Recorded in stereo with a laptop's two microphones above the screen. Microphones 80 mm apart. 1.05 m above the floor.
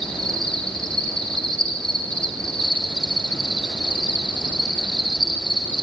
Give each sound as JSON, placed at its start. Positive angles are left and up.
{"t": 0.0, "sound": "an insect", "side_deg": 10, "distance_m": 3.5}